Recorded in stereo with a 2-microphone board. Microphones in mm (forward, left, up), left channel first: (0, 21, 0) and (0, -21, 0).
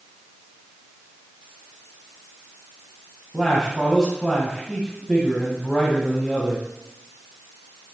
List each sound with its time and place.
3.3 s a man speaking: 5° left (ahead or behind), 1.5 m